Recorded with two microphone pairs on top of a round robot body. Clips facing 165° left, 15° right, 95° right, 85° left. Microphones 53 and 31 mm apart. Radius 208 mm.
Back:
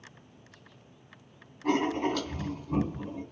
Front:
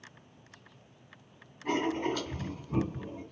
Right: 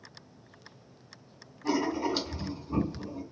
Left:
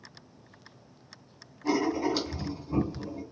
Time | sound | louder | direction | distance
1.6 | writing | back 3 dB, left 2 dB | straight behind | 2.5 m